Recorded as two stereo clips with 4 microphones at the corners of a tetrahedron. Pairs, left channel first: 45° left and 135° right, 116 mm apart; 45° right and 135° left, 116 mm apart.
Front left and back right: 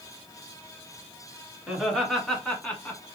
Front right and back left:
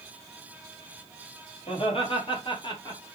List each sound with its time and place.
1.7 s laughter: 50° right, 1.7 m; by 3.1 s 15° right, 1.2 m